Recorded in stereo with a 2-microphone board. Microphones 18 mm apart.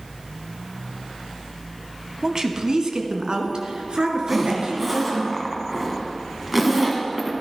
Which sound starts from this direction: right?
A woman speaking, at 2.2 s.